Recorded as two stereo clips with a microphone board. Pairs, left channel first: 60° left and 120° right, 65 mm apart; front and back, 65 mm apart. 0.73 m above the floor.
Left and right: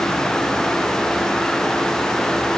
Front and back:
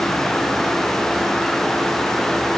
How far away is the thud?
I don't hear a thud.